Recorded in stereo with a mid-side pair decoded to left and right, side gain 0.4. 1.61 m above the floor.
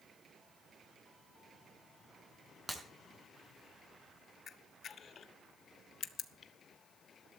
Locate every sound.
2.7 s breaking glass: 10° right, 4.5 m
4.5 s a camera shutter: 55° left, 1.2 m